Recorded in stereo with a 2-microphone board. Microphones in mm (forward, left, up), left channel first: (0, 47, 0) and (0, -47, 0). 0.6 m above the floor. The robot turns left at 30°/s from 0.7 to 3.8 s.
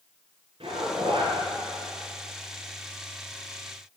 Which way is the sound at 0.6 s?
80° right.